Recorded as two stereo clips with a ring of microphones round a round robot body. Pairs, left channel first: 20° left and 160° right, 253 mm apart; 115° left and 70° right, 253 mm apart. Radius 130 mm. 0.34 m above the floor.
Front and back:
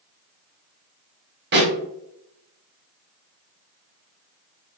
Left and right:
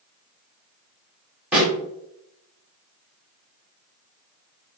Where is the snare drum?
150° right, 1.7 m.